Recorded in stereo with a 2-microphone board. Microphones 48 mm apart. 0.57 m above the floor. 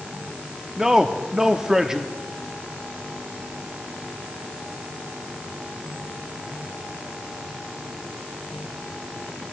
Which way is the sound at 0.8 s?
10° right (ahead or behind).